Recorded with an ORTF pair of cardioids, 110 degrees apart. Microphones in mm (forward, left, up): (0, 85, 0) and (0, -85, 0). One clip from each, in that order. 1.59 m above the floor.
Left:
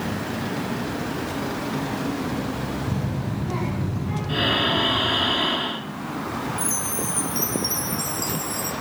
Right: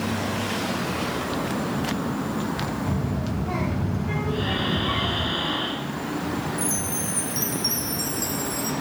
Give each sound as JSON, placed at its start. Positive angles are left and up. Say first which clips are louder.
{"t": 2.9, "sound": "a child speaking", "louder": "right 1 dB", "azimuth_deg": -55, "distance_m": 6.5}
{"t": 4.3, "sound": "breathing", "louder": "left 7 dB", "azimuth_deg": 60, "distance_m": 2.0}
{"t": 6.6, "sound": "a chime", "louder": "left 1 dB", "azimuth_deg": 15, "distance_m": 1.5}